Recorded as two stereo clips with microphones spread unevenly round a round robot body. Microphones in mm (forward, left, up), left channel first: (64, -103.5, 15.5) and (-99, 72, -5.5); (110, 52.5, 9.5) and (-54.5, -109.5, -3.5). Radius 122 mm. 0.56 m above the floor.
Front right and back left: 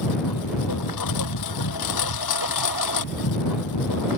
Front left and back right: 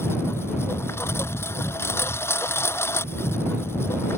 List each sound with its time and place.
0.0 s a lawn mower: 35° right